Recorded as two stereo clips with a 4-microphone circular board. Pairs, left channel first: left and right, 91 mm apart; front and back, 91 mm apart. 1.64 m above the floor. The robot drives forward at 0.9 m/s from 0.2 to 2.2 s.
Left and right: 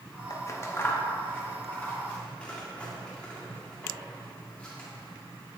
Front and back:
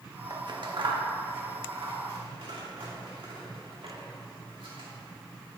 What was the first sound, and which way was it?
Scissors, 135° left.